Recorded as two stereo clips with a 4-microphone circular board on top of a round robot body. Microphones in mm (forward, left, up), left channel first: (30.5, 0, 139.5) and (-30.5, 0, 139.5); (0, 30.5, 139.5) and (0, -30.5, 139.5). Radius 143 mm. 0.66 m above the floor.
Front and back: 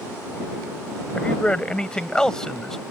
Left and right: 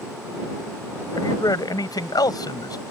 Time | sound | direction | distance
1.1 | a man speaking | 70° left | ?